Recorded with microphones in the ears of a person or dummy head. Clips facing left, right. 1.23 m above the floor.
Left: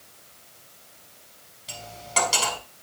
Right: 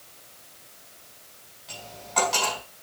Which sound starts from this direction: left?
Cutlery clinking, at 1.7 s.